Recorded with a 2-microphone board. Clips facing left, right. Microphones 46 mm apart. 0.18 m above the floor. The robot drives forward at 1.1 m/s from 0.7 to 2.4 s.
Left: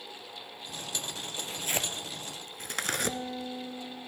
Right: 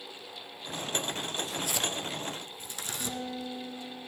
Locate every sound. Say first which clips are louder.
1.3 s tearing paper: right 1 dB; 25° left (ahead or behind), 1.4 m; by 3.2 s 70° left (ahead or behind), 0.7 m
3.0 s a guitar: left 2 dB; centre (ahead or behind), 7.5 m